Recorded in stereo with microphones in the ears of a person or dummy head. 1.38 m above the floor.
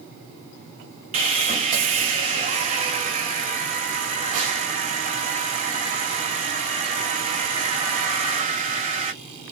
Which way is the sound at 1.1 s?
35° right (ahead or behind).